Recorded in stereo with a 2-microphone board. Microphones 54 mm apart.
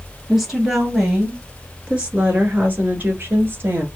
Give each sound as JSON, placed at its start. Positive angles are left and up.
{"t": 0.3, "sound": "a woman speaking", "side_deg": -5, "distance_m": 2.0}